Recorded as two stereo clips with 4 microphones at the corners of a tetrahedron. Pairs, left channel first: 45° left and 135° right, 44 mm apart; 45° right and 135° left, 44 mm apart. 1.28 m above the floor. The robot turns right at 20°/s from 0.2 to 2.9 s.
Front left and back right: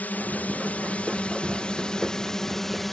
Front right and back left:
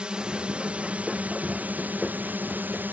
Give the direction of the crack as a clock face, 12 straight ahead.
No crack in this recording.